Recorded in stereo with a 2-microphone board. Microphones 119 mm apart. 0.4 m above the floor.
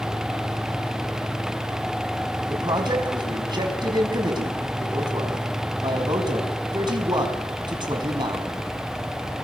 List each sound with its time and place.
2.5 s a man speaking: 40° right (ahead or behind), 3.5 m